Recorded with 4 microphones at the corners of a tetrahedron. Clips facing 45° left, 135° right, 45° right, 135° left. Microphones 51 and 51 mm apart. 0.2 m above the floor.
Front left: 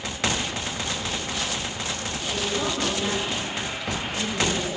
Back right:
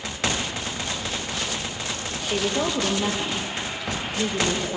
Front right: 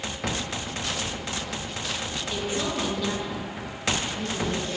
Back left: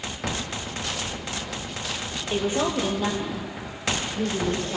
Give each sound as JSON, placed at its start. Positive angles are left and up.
{"t": 2.3, "sound": "a woman speaking", "azimuth_deg": -170, "distance_m": 6.0}